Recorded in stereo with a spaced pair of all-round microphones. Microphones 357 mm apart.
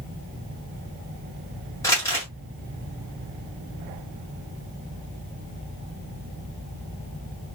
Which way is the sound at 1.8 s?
10° left (ahead or behind).